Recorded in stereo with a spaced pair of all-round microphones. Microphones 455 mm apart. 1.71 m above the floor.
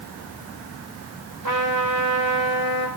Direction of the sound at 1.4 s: 40° right (ahead or behind).